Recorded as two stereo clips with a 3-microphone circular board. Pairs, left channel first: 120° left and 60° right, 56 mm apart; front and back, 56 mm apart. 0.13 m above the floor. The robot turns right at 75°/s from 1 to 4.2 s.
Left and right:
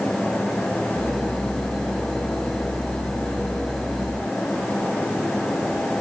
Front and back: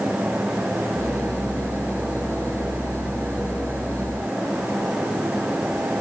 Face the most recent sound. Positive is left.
No sound to turn to.